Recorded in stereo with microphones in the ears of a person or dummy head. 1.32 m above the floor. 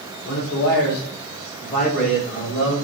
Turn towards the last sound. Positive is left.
turn(degrees=25)  # may be behind; listen again after turning